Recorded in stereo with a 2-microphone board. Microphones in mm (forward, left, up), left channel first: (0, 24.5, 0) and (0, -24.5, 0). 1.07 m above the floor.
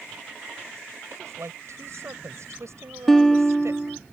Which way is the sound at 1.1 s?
75° right (ahead or behind).